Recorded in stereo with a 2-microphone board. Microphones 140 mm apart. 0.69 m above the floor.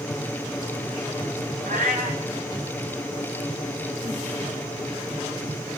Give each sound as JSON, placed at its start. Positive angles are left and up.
{"t": 1.7, "sound": "a cat meowing", "side_deg": -80, "distance_m": 4.0}